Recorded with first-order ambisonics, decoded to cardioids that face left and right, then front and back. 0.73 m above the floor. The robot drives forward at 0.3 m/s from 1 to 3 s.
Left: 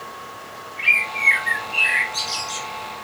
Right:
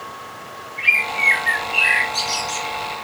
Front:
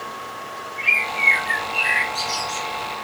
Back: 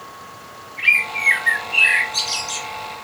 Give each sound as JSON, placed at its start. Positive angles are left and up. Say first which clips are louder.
{"t": 0.8, "sound": "a bird", "louder": "right 1 dB, back 2 dB", "azimuth_deg": 180, "distance_m": 1.3}